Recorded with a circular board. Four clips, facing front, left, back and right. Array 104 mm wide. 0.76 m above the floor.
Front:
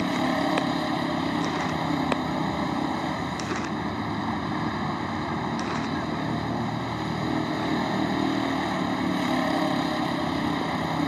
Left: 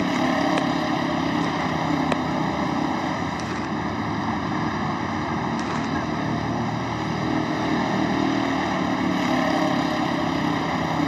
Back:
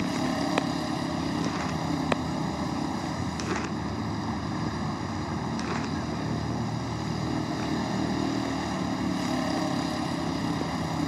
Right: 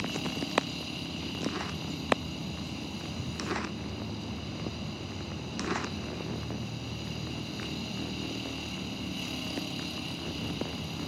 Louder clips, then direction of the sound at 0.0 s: Left 14 dB, front 3 dB; 75° left.